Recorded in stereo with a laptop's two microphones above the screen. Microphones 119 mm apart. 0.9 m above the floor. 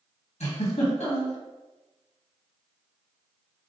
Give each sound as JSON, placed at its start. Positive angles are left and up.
{"t": 0.4, "sound": "a giggle", "side_deg": 65, "distance_m": 1.3}